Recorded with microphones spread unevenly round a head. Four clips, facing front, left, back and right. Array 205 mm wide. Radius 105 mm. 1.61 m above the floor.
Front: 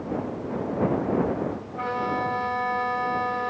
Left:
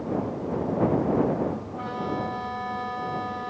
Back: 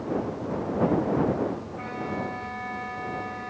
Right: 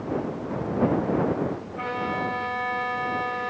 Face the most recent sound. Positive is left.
turn(degrees=-30)